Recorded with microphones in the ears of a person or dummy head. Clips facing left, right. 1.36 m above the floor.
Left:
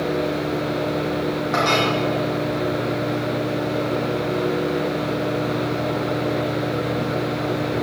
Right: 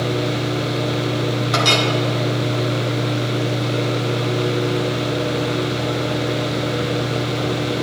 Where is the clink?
40° right (ahead or behind), 1.6 m.